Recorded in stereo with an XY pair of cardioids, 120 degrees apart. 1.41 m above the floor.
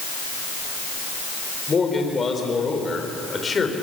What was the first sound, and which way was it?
A man speaking, 25° left.